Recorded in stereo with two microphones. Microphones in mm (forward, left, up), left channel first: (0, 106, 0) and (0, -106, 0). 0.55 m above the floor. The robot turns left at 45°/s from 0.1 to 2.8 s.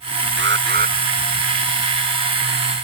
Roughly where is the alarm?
Right.